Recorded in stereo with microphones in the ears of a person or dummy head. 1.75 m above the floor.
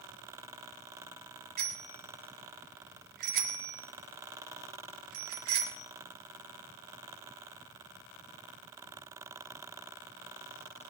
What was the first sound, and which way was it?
A bicycle bell, 40° right (ahead or behind).